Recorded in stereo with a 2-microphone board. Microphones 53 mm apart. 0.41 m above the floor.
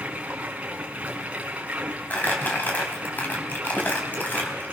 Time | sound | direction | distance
0.0 | running water | 25° right (ahead or behind) | 3 m
2.1 | crumpling | 35° left (ahead or behind) | 3 m